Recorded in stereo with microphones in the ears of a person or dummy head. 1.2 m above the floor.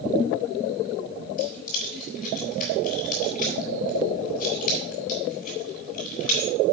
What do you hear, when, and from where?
1.4 s keys jangling: 40° left (ahead or behind), 5 m